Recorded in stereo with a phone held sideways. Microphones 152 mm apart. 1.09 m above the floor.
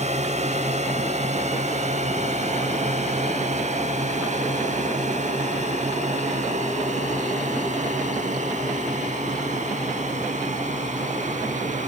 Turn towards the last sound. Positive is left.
turn(degrees=-50)  # may be behind; listen again after turning